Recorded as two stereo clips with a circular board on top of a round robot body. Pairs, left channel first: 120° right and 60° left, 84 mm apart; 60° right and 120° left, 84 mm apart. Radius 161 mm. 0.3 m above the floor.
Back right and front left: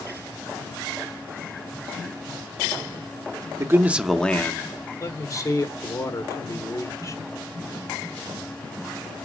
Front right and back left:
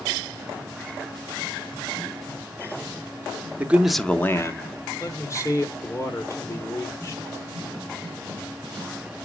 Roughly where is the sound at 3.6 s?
Ahead left.